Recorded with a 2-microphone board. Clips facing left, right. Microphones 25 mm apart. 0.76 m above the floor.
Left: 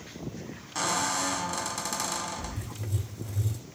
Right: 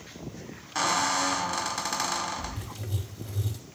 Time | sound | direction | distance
0.8 | a squeak | 25° right (ahead or behind) | 0.7 m
2.6 | writing | 50° right (ahead or behind) | 4.5 m